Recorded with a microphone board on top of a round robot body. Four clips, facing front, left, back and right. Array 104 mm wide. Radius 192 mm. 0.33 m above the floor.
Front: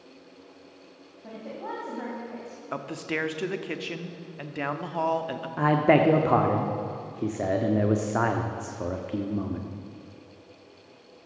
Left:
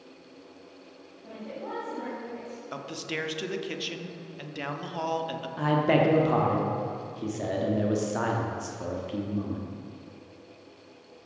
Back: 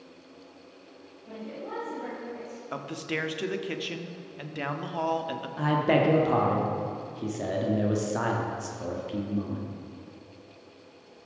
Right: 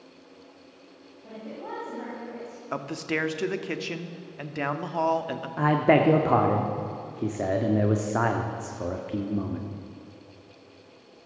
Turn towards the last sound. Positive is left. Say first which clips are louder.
# right 3 dB, front 4 dB
turn(degrees=-40)